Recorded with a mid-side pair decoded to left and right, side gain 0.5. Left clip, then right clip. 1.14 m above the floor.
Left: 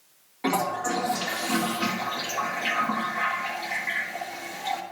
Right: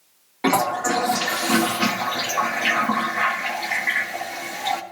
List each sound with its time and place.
0.4 s a toilet flushing: 50° right, 1.5 m